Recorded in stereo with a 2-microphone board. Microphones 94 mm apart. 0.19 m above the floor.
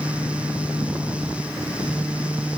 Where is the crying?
No crying in this recording.